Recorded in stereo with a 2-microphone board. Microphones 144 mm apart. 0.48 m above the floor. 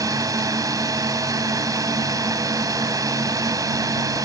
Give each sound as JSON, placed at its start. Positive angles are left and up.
{"t": 0.0, "sound": "a drone", "side_deg": -25}